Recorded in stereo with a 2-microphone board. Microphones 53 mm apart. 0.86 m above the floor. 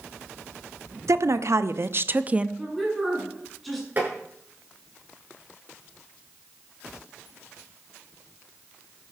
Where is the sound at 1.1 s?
75° right (ahead or behind), 1.2 m; by 2.5 s 20° right (ahead or behind), 0.7 m.